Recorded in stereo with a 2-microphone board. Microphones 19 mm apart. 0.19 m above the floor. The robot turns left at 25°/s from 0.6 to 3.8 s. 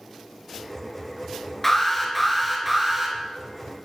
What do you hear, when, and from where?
1.6 s an alarm: 10° left, 4 m; by 3.2 s 25° right, 4 m